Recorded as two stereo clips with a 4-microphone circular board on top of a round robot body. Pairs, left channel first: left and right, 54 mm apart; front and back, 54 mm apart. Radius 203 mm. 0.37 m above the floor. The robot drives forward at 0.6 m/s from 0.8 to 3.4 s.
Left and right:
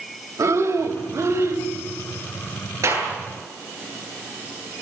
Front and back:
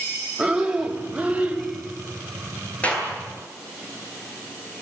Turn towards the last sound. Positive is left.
turn(degrees=-65)